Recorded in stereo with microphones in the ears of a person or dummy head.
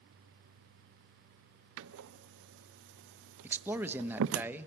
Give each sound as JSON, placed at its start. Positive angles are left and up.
{"t": 1.8, "sound": "a door slam", "side_deg": -70, "distance_m": 0.6}
{"t": 3.4, "sound": "a man speaking", "side_deg": -15, "distance_m": 1.0}